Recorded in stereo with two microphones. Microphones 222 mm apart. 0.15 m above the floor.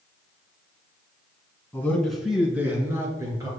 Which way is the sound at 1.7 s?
10° left (ahead or behind).